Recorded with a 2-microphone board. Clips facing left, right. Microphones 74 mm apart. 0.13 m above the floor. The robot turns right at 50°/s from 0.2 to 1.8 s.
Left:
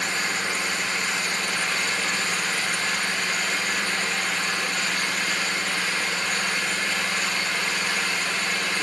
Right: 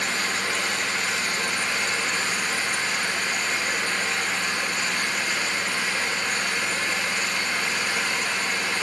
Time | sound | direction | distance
0.0 | an engine running | 100° right | 3 m